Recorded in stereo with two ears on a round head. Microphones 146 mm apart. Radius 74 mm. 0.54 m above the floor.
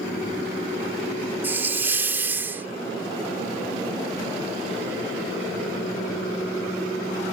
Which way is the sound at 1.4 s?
15° right (ahead or behind).